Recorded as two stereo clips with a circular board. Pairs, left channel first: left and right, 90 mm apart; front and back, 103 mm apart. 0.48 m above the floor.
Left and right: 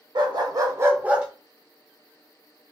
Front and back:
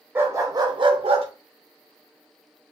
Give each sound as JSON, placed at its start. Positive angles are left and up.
{"t": 0.1, "sound": "a dog barking", "azimuth_deg": -115, "distance_m": 0.7}